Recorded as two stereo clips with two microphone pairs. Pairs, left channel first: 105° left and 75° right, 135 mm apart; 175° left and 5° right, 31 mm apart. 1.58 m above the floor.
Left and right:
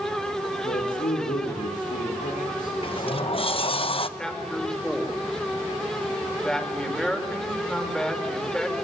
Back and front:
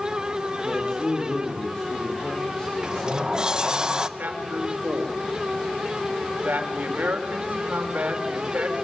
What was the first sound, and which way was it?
A man speaking, 110° left.